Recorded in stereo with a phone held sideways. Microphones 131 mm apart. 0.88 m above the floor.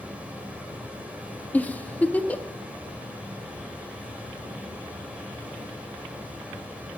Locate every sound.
0.0 s a fan: 10° right (ahead or behind), 3 m
1.5 s a giggle: 10° left (ahead or behind), 0.7 m